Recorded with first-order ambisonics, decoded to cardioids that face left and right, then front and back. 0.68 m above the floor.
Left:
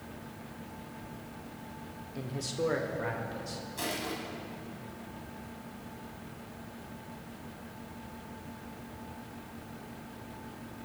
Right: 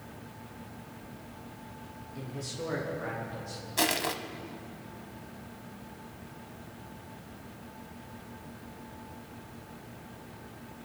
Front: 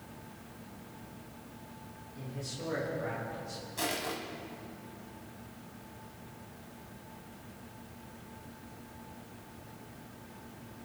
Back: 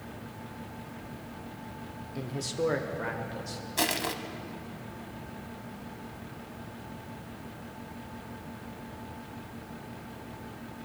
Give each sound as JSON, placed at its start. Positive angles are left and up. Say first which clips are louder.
{"t": 2.1, "sound": "a man speaking", "louder": "left 4 dB, back 10 dB", "azimuth_deg": 160, "distance_m": 1.2}
{"t": 3.8, "sound": "crushing", "louder": "right 8 dB, back 5 dB", "azimuth_deg": -130, "distance_m": 0.8}